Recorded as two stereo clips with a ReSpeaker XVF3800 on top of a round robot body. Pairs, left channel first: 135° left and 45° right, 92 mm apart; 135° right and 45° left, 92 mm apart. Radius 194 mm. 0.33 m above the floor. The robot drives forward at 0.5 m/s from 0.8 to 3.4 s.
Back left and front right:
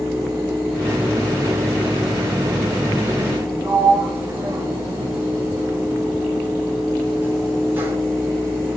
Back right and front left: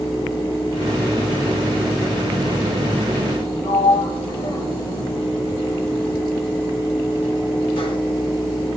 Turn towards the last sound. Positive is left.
turn(degrees=-115)